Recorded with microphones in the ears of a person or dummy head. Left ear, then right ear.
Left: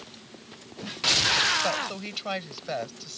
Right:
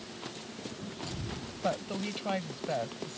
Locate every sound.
1.6 s a woman speaking: 35° left (ahead or behind)